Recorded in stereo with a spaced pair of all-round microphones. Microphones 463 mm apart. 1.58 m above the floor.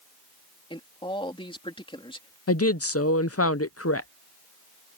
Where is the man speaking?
10° left (ahead or behind).